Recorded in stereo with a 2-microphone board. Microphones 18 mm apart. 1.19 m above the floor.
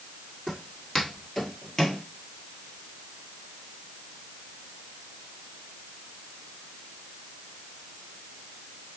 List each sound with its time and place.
0.5 s footsteps: 20° left (ahead or behind), 2 m; by 2.0 s 35° left (ahead or behind), 1.6 m